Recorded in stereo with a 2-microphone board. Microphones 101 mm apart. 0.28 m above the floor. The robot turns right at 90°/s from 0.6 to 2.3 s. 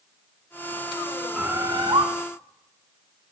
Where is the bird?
170° right, 1.1 m; by 2.1 s 105° right, 1.1 m.